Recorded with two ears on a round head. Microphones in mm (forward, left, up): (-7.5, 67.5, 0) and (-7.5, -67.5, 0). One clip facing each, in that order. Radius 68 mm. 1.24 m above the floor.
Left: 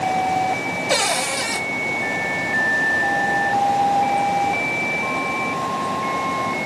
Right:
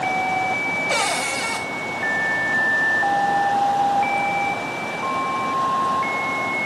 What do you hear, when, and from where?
0.9 s a cupboard door: 40° left (ahead or behind), 1.3 m